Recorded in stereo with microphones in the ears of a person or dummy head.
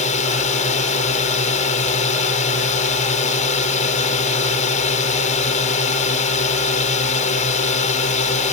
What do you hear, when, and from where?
0.0 s a drone: 45° left (ahead or behind)